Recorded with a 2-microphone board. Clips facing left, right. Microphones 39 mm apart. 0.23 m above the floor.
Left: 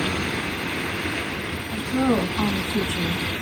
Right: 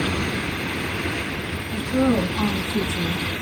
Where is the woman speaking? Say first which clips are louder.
Right 1 dB; 25° left (ahead or behind), 2 m; by 3.2 s 45° left (ahead or behind), 2 m.